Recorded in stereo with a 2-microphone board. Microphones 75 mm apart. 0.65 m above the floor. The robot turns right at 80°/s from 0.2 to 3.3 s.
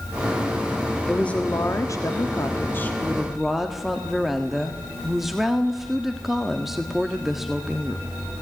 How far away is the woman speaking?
About 1.5 m.